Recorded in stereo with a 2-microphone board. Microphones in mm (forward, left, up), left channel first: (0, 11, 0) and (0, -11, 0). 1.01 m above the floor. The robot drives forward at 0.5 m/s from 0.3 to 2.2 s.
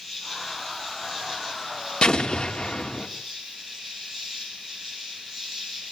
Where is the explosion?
50° left (ahead or behind), 2.5 m; by 3.1 s 55° left (ahead or behind), 2.5 m.